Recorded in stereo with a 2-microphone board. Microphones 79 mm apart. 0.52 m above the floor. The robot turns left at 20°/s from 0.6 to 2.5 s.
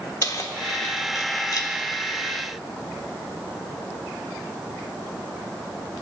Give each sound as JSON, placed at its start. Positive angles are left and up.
{"t": 0.2, "sound": "keys jangling", "side_deg": 45, "distance_m": 0.9}